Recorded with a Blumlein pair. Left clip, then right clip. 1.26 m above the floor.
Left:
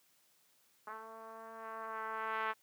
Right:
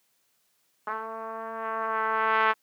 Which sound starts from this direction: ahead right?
A trumpet, at 0.9 s.